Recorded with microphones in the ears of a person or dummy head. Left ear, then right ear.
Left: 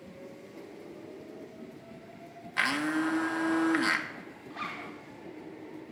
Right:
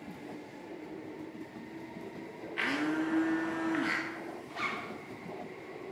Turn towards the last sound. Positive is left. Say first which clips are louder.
# right 2 dB
turn(degrees=-10)  # may be behind; listen again after turning